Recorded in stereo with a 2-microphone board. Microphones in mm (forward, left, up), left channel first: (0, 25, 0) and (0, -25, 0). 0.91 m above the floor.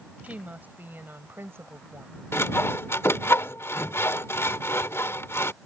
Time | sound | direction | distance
0.2 | a woman speaking | 30° right (ahead or behind) | ?
2.3 | sawing | 60° left (ahead or behind) | ?